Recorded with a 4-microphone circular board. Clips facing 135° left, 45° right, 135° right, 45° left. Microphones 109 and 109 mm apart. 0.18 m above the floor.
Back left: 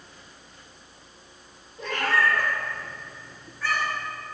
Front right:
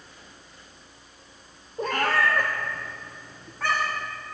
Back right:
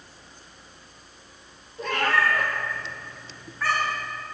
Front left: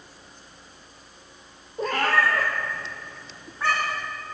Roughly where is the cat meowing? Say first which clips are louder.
Front right 1 dB, front left 1 dB; ahead.